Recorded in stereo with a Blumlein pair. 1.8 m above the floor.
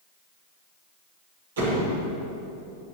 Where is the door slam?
65° right, 5.5 m.